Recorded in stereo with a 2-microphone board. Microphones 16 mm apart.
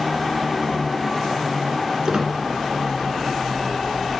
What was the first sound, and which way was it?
A squeak, 55° right (ahead or behind).